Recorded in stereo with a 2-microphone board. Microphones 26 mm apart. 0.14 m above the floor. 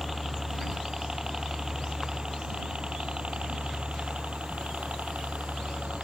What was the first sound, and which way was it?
A helicopter, 10° right (ahead or behind).